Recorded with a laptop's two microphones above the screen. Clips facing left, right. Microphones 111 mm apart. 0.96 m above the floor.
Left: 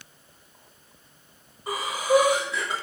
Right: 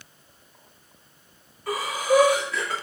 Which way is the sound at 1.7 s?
20° left (ahead or behind).